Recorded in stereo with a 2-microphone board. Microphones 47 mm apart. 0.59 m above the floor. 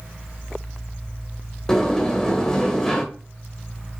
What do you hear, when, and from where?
1.7 s a sliding door: 15° left (ahead or behind), 1.8 m